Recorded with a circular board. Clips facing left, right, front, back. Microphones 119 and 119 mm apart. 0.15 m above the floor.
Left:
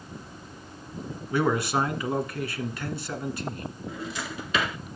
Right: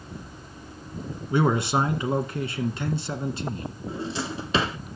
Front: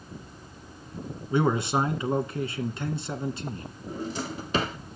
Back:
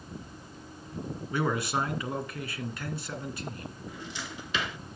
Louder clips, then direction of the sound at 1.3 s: Right 2 dB, front 5 dB; 45° right.